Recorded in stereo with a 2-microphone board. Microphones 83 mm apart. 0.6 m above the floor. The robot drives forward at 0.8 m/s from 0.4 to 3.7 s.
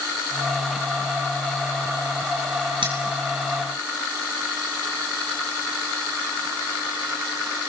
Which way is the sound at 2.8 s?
85° right.